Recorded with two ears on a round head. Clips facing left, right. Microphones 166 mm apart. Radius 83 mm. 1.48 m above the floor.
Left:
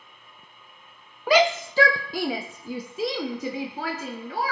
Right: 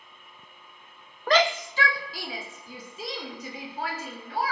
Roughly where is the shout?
Centre.